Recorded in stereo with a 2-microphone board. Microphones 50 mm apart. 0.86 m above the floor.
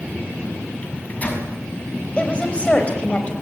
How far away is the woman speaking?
About 4.5 m.